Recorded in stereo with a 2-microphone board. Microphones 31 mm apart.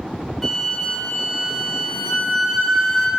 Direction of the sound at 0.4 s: Centre (ahead or behind).